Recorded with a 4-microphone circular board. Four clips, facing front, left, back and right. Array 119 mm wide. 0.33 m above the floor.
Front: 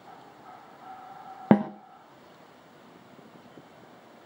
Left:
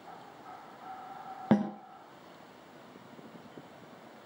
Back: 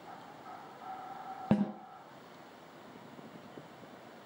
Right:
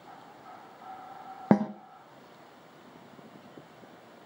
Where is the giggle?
I don't hear a giggle.